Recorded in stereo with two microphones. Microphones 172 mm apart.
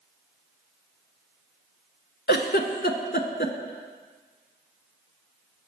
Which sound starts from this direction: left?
A giggle, at 2.3 s.